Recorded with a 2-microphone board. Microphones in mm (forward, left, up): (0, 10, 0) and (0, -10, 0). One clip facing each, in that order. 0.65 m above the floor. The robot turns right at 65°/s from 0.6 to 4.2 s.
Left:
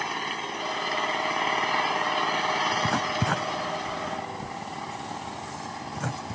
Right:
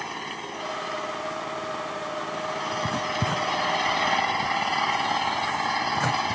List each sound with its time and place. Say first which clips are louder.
0.0 s an engine running: left 3 dB; 10° left; by 6.3 s 115° right
2.7 s writing: left 1 dB; 75° left (ahead or behind); by 6.3 s 20° right (ahead or behind)